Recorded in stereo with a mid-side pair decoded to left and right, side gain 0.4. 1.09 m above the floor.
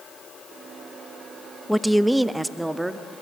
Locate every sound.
1.7 s a woman speaking: straight ahead, 0.8 m; by 3.1 s 15° right, 1.9 m